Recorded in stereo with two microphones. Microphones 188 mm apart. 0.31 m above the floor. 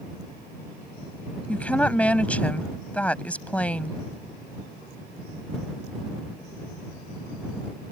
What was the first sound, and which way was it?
A woman speaking, 5° left (ahead or behind).